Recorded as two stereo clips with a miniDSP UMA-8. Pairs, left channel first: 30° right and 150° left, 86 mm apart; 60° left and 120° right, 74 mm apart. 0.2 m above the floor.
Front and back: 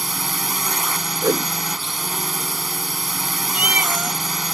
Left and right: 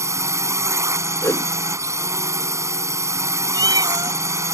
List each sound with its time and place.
0.0 s a drone: 125° right
1.2 s a whoosh: 105° left
3.5 s a cat meowing: 140° right